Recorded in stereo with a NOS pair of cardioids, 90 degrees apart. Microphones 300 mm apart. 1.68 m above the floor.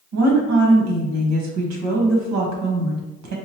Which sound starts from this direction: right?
A woman speaking, at 0.1 s.